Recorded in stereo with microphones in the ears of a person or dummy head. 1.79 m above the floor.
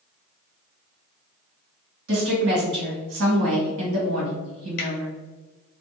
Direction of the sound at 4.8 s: 50° left (ahead or behind).